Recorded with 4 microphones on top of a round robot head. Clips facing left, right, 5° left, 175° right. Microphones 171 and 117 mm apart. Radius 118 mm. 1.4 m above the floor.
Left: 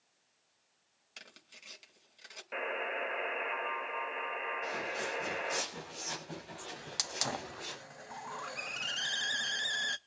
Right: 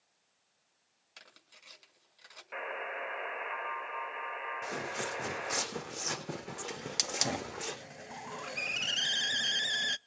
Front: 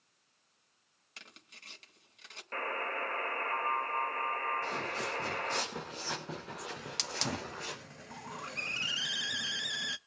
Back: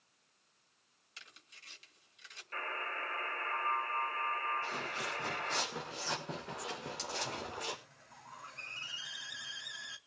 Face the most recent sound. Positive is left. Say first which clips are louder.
# right 4 dB, even
turn(degrees=-20)